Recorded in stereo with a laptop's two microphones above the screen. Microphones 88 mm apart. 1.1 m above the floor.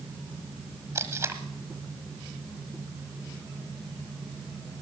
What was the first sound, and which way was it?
Tape being pulled, 35° right (ahead or behind).